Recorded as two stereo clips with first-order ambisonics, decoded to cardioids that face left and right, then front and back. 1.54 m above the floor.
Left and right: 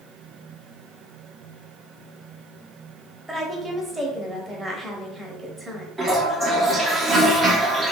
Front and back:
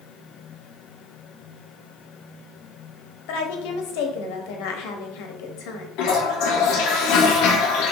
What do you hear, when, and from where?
3.3 s a woman speaking: 5° right, 1.0 m
6.0 s a toilet flushing: 5° right, 0.8 m